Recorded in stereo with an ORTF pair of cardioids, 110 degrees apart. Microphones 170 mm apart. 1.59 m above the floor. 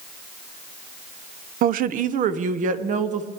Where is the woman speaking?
60° right, 0.6 m; by 3.3 s 50° right, 1.5 m.